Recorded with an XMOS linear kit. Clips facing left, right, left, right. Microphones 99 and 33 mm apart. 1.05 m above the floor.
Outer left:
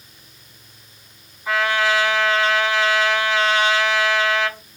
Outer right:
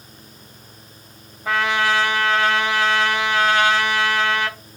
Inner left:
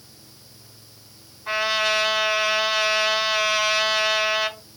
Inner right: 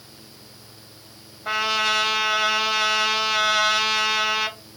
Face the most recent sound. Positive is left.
turn(degrees=-60)  # may be behind; listen again after turning